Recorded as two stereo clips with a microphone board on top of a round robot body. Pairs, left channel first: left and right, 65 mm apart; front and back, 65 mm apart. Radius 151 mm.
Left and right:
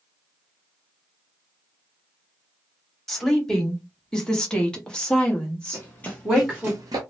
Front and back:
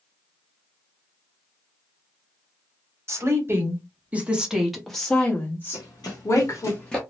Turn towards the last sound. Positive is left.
turn(degrees=-90)